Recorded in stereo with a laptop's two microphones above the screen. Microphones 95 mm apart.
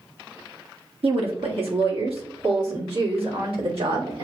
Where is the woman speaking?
75° right (ahead or behind), 1.4 m; by 4.2 s 80° right, 3 m.